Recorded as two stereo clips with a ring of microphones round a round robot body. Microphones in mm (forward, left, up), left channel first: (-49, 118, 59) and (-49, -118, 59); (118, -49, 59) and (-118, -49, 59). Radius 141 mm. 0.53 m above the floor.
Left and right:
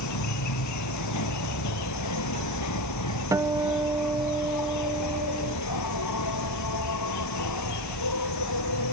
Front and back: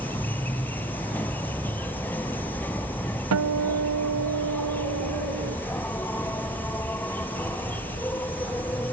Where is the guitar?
165° right.